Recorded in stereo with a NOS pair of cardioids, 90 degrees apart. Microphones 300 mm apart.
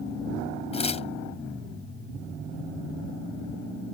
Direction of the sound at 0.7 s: 20° left.